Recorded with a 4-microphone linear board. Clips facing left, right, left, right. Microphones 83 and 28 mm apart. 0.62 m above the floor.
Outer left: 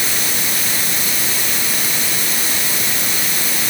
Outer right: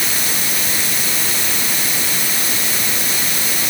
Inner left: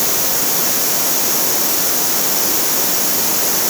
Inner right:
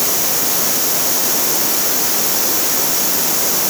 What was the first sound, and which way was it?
Only background noise.